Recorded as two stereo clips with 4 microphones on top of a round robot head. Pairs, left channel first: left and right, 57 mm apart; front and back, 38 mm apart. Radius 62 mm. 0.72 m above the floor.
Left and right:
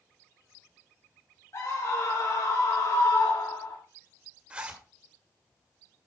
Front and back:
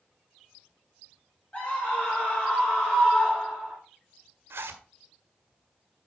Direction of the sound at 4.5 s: 160° right.